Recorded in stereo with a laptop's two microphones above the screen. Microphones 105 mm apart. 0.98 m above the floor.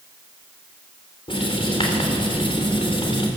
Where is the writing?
55° left (ahead or behind), 3.5 m.